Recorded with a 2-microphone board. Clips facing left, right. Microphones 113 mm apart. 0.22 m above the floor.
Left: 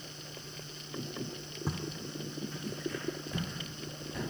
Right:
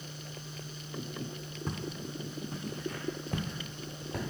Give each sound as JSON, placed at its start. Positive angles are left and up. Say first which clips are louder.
{"t": 1.7, "sound": "footsteps", "louder": "even", "side_deg": 10, "distance_m": 0.5}